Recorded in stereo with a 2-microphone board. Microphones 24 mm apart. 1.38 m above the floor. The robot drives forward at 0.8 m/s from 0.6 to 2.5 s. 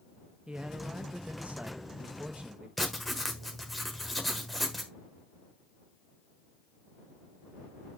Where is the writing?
5° left (ahead or behind), 1.3 m.